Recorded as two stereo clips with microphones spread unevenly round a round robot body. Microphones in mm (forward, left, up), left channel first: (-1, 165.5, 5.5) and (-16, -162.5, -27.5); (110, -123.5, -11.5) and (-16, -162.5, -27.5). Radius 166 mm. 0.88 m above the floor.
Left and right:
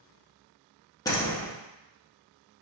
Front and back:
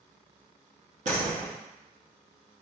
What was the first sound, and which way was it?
A door slam, 170° left.